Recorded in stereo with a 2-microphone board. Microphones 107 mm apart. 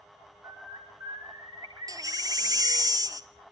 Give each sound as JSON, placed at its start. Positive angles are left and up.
{"t": 0.4, "sound": "a bird", "side_deg": -35, "distance_m": 5.5}
{"t": 1.9, "sound": "a baby crying", "side_deg": -40, "distance_m": 0.7}